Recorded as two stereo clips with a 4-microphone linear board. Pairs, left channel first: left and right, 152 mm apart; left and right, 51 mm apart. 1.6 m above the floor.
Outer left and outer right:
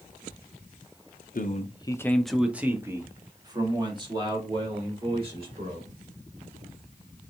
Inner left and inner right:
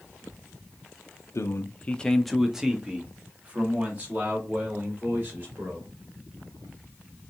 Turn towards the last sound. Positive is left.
turn(degrees=-35)  # may be behind; listen again after turning